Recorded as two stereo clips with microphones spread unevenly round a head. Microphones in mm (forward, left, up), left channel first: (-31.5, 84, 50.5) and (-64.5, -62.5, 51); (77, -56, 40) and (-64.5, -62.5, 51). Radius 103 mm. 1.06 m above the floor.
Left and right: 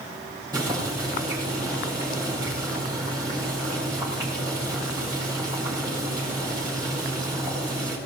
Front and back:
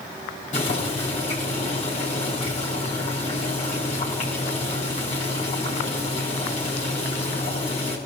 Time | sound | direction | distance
0.5 | boiling | 35° right | 6 m